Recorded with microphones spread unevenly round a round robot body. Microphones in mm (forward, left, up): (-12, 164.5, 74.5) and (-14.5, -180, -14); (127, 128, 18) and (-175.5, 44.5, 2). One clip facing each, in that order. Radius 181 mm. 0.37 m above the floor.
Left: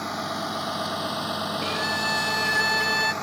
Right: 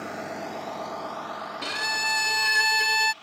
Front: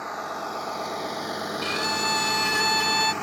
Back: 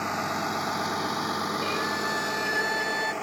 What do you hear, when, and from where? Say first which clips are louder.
0.0 s a vehicle: left 2 dB, back 3 dB; 155° left; by 3.2 s 80° left
1.6 s a violin: left 7 dB, even; 35° right